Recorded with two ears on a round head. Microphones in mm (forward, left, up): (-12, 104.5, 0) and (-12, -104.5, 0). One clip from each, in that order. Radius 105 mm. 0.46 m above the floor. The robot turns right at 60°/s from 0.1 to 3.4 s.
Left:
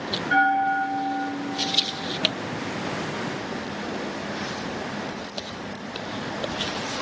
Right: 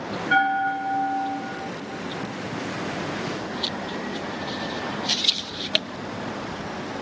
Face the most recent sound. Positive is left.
turn(degrees=-175)